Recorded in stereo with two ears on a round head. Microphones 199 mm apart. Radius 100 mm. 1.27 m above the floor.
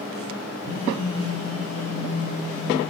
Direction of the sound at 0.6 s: 75° left (ahead or behind).